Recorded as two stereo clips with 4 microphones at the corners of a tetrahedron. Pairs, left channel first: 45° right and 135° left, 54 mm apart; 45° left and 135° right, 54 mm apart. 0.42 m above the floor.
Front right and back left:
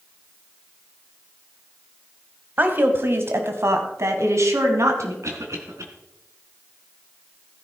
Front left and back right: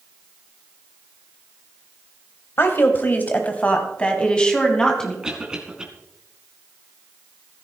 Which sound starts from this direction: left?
A woman speaking, at 2.6 s.